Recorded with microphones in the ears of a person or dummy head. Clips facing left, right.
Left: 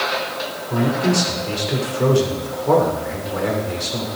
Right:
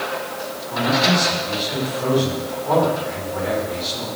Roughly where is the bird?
I don't hear a bird.